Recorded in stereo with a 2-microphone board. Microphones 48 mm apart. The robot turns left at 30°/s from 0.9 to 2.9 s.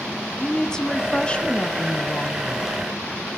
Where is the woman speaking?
155° left, 1.3 m; by 2.7 s 100° left, 1.3 m.